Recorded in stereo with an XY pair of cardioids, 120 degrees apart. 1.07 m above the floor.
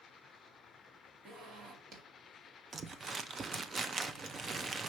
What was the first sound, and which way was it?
A zipper, 60° right.